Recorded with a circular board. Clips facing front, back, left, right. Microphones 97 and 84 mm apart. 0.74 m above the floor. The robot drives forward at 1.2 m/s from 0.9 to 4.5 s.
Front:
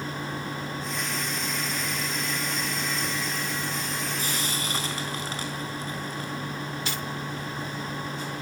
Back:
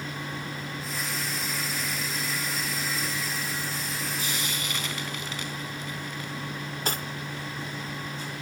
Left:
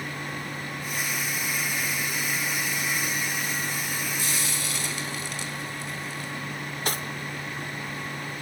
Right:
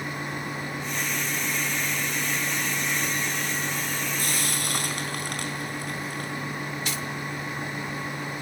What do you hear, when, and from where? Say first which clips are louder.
4.2 s frying: front 2 dB, right 2 dB; 50° right, 4 m; by 6.3 s 55° right, 4 m
6.8 s cutlery clinking: back 1 dB, left 1 dB; 135° left, 0.9 m